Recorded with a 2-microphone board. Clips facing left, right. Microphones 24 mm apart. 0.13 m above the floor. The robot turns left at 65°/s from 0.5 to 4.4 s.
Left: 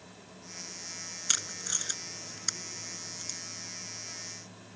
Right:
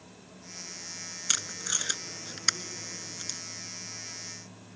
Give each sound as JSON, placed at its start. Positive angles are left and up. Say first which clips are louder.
{"t": 1.3, "sound": "tape being pulled", "louder": "right 2 dB", "side_deg": 0}